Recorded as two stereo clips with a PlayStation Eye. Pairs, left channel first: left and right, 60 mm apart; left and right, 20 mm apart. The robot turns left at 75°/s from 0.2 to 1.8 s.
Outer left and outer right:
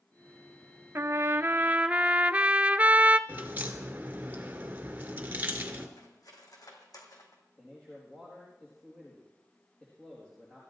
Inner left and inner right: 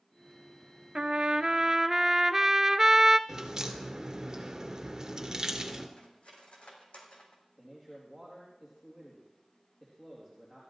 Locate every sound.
0.9 s a trumpet: 85° right, 0.6 m; by 3.2 s 145° right, 0.6 m
3.3 s a crack: 25° right (ahead or behind), 1.9 m
6.0 s cutlery clinking: 75° left (ahead or behind), 3 m
7.6 s a man speaking: 15° left (ahead or behind), 4.5 m